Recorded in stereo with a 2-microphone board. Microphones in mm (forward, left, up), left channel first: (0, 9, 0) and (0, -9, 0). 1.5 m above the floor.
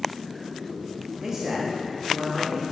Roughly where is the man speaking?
Right.